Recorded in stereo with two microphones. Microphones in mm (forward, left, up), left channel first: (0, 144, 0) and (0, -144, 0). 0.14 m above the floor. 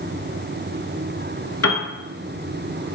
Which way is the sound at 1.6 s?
55° left (ahead or behind).